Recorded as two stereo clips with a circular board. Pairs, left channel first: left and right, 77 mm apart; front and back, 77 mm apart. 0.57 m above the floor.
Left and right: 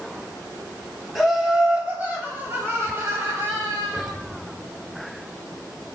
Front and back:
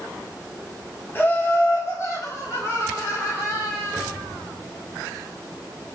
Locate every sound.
1.1 s laughter: straight ahead, 1.0 m; by 4.1 s 45° right, 2 m